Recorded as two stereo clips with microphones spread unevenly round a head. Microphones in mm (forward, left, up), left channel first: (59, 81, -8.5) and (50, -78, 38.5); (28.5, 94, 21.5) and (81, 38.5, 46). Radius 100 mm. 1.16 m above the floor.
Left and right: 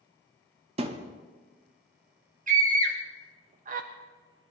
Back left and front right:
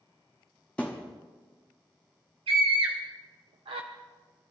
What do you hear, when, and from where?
0.8 s a thud: 130° right, 0.7 m
2.5 s a scream: 50° right, 0.8 m